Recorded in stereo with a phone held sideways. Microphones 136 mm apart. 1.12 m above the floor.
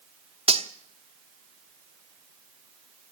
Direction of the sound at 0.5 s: 40° right (ahead or behind).